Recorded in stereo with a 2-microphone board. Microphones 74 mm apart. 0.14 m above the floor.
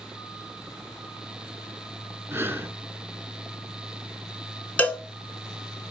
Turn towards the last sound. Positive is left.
turn(degrees=20)  # may be behind; listen again after turning